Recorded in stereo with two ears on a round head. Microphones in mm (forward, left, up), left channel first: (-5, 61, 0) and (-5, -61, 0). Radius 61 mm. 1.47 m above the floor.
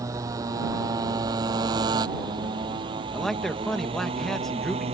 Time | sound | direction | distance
0.0 | a motorcycle | 25° right (ahead or behind) | ?
3.1 | a man speaking | 5° left (ahead or behind) | ?